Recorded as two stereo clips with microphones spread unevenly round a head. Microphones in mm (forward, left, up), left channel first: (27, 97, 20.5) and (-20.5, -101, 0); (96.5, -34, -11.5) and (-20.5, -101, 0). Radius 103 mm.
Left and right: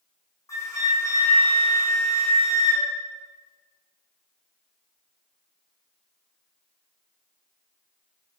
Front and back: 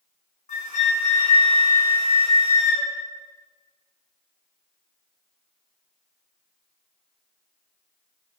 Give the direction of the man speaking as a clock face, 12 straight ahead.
No man speaking in this recording.